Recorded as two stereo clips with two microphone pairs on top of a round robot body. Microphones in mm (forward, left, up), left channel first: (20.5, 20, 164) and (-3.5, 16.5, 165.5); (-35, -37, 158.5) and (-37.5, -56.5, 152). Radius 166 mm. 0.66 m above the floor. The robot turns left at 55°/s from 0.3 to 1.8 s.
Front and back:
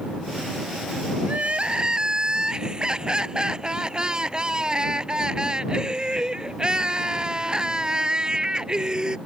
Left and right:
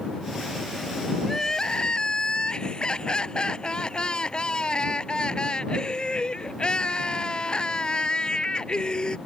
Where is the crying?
160° left; by 9.2 s 130° left.